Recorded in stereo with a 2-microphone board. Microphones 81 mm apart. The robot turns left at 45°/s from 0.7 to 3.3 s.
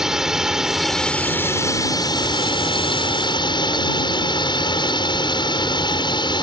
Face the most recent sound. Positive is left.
turn(degrees=70)